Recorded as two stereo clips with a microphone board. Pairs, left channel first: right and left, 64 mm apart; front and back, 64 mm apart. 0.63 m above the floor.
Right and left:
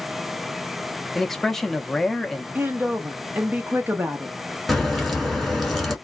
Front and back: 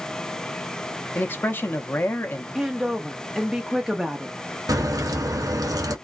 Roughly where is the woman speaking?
Left.